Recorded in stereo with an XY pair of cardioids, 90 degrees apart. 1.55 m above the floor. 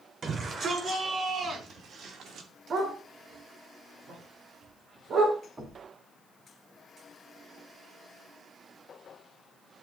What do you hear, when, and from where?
0.2 s a shout: 60° right, 4.5 m; by 2.5 s 80° right, 2.5 m
2.7 s a dog barking: 65° right, 5.5 m
5.6 s knocking: 35° right, 5 m